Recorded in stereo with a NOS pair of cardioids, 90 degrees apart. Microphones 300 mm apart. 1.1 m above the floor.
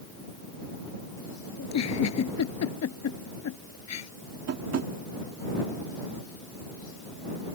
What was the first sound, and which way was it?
A giggle, 60° left.